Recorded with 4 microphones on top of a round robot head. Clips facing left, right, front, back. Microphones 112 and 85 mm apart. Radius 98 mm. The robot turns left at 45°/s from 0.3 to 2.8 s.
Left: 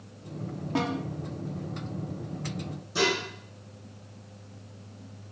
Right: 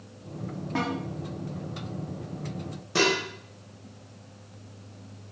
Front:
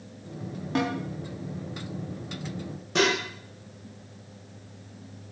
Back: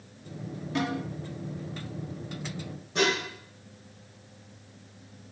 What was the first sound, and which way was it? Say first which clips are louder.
A snare drum: left 1 dB, front 2 dB; 20° left.